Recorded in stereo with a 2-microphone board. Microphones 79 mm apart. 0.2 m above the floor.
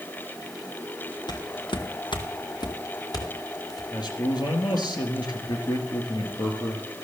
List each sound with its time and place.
1.3 s footsteps: 65° left (ahead or behind), 1.6 m; by 3.8 s 50° left (ahead or behind), 4 m
3.9 s a man speaking: 60° left (ahead or behind), 3 m